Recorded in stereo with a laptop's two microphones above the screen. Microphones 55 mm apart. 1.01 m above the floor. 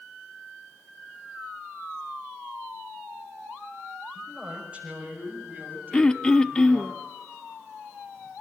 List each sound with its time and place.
4.2 s a man speaking: 15° right (ahead or behind), 5.5 m; by 6.9 s 45° right (ahead or behind), 8 m
5.9 s throat clearing: 15° left (ahead or behind), 0.5 m